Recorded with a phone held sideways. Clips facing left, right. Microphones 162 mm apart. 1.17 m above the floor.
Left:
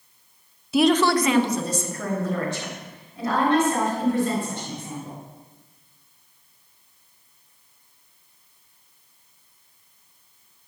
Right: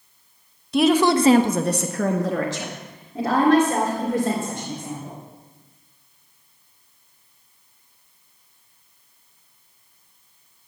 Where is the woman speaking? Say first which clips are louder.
Right 1 dB; 5° left (ahead or behind), 1.0 m; by 5.2 s 75° right (ahead or behind), 4.5 m.